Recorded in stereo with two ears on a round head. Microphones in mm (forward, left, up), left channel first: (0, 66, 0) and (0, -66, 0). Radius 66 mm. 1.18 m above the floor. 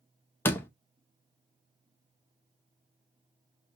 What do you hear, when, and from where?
0.5 s a door slam: 15° left (ahead or behind), 0.6 m